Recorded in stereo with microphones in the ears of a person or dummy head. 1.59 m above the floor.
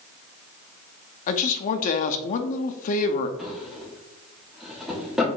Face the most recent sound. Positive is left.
turn(degrees=0)  # may be behind; listen again after turning